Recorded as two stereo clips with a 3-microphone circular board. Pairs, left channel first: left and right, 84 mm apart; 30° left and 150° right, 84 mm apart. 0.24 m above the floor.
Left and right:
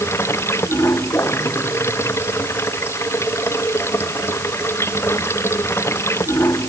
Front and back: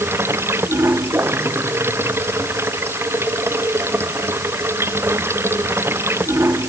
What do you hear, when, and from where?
0.0 s running water: 150° left